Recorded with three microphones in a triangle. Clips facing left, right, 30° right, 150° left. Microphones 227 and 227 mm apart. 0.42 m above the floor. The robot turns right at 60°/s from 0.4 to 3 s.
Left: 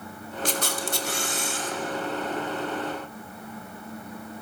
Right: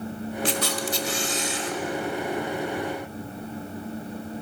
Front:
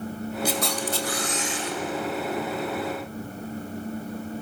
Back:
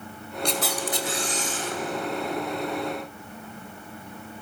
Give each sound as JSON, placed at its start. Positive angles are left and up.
{"t": 0.5, "sound": "a camera shutter", "azimuth_deg": 50, "distance_m": 2.5}